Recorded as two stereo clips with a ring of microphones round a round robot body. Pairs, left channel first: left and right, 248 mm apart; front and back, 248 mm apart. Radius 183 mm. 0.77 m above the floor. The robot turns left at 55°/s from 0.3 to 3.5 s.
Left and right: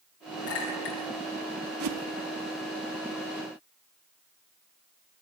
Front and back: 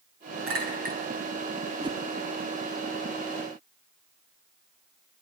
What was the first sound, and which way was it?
A clink, 150° left.